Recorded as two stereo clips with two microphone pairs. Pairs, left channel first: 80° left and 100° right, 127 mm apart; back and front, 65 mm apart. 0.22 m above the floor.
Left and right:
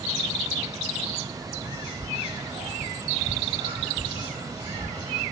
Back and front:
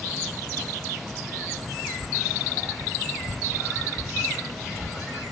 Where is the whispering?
70° right, 1.9 m.